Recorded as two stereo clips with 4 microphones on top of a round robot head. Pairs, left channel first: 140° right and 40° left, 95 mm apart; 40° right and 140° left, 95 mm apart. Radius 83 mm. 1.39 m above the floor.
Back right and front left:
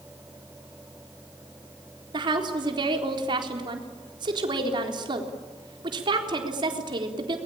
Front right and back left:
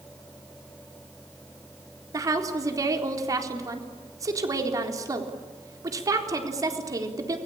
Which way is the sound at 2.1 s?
85° left.